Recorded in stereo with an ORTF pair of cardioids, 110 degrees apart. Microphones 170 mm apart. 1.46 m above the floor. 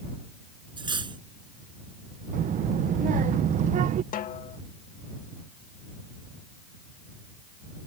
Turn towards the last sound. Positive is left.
turn(degrees=55)